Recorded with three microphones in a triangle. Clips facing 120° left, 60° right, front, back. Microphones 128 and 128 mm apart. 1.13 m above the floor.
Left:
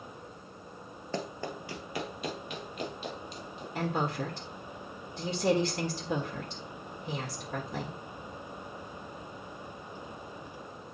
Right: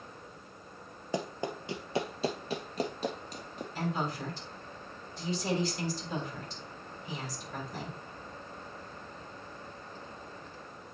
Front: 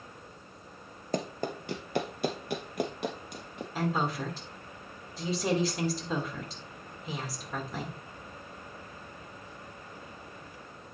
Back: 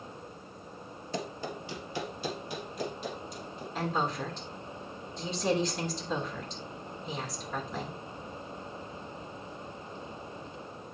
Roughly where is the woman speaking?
Left.